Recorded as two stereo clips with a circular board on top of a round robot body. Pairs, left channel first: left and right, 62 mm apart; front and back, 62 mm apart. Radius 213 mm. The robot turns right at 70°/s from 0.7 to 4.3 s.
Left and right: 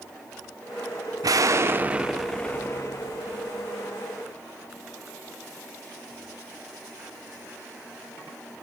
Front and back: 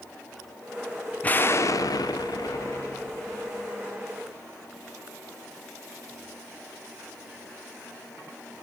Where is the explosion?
70° right, 1.5 m; by 3.7 s 105° left, 1.5 m.